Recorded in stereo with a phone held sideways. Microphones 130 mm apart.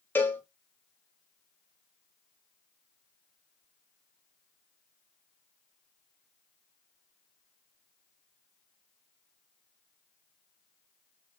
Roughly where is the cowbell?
Centre.